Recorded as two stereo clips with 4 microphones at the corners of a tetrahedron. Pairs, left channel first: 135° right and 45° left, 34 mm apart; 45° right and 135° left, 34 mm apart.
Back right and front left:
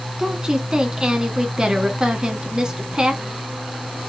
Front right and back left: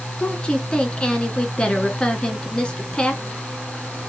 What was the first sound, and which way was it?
A woman speaking, 5° right.